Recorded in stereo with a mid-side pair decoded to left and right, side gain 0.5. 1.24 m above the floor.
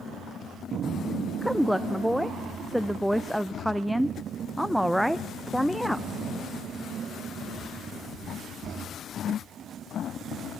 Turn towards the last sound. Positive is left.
turn(degrees=0)